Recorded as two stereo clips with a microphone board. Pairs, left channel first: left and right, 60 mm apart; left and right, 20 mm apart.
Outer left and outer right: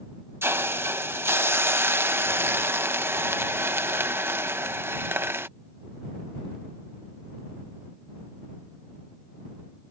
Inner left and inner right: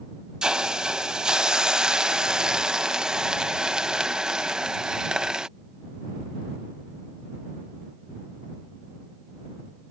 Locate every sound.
0.4 s a hiss: 40° right (ahead or behind)